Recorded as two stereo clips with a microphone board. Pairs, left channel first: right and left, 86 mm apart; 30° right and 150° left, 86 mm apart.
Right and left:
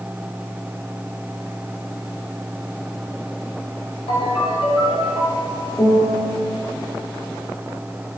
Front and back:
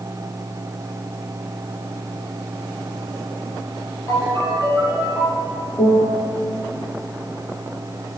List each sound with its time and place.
4.1 s a ringtone: 85° right, 9.5 m
5.8 s a piano: 15° right, 6.5 m